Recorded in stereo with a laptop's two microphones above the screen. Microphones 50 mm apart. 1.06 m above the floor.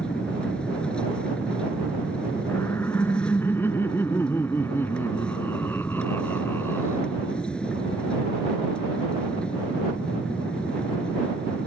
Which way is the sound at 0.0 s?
20° left (ahead or behind).